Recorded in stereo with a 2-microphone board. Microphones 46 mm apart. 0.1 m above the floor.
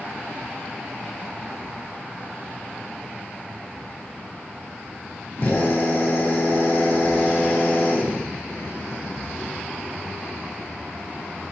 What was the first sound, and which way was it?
A drill, 55° left (ahead or behind).